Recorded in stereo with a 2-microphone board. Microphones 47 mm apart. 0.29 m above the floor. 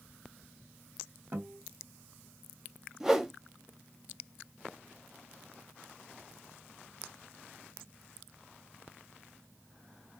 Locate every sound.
1.3 s a guitar: 45° right (ahead or behind), 2 m
3.0 s a whoosh: 10° right (ahead or behind), 0.6 m